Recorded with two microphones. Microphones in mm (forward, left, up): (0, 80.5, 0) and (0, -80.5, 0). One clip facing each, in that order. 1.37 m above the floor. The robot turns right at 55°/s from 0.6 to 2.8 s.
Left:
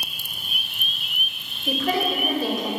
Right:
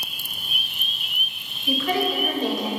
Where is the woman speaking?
130° left, 1.4 m; by 2.7 s 175° right, 1.4 m.